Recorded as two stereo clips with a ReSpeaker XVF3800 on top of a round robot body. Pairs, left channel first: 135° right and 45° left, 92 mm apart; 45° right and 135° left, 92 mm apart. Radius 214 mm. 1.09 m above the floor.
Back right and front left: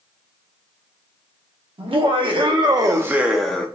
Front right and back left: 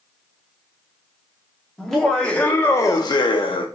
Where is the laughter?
45° left, 0.9 m; by 3.7 s 60° right, 0.7 m.